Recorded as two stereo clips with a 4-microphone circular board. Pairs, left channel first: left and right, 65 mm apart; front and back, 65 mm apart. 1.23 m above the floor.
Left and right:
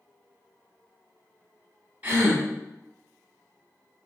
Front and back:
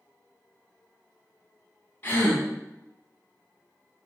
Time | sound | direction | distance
2.0 | a gasp | 45° right | 0.8 m